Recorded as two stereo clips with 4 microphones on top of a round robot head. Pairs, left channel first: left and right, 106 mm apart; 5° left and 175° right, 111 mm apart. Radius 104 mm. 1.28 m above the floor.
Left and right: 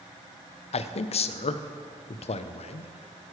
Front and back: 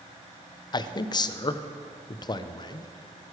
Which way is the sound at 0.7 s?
60° left.